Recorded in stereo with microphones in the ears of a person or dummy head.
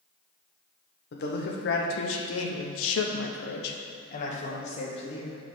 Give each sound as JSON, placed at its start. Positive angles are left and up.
{"t": 1.1, "sound": "a man speaking", "side_deg": 50, "distance_m": 1.3}